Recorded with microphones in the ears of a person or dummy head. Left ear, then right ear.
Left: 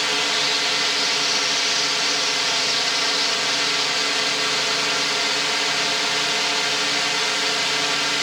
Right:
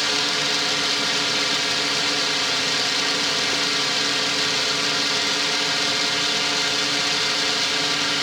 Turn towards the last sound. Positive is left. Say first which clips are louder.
# left 1 dB
turn(degrees=20)  # may be behind; listen again after turning